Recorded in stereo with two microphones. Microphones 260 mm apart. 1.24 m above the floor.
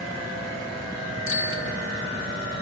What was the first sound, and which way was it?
A bicycle bell, 55° left (ahead or behind).